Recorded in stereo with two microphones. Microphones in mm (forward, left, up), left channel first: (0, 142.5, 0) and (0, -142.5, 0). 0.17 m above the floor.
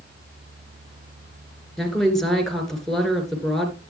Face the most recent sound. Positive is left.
turn(degrees=0)  # may be behind; listen again after turning